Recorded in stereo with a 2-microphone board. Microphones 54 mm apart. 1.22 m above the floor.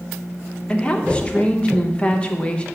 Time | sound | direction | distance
0.7 | a woman speaking | 20° left (ahead or behind) | 1.3 m